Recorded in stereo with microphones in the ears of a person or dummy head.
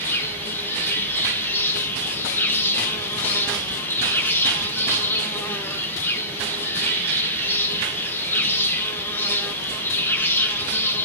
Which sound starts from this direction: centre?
An insect, at 0.0 s.